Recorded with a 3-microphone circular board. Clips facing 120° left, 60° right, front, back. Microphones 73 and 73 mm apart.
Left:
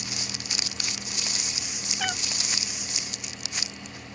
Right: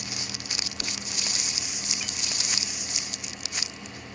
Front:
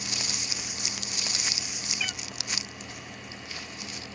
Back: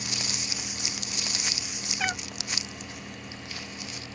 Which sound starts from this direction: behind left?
A cat meowing, at 2.0 s.